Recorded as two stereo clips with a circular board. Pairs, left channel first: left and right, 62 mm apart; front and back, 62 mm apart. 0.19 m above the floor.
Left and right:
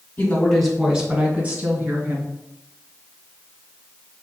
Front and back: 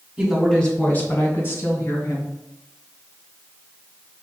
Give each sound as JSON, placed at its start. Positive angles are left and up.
{"t": 0.2, "sound": "a woman speaking", "azimuth_deg": 105, "distance_m": 1.2}